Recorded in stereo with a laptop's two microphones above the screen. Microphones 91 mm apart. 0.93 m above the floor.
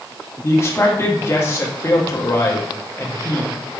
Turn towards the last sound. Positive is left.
turn(degrees=30)  # may be behind; listen again after turning